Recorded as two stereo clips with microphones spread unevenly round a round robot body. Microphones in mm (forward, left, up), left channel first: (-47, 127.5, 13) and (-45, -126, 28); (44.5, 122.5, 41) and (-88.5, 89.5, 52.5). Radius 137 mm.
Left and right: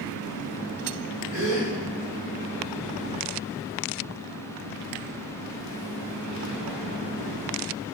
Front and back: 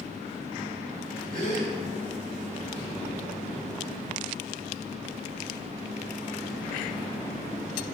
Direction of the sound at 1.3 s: 50° right.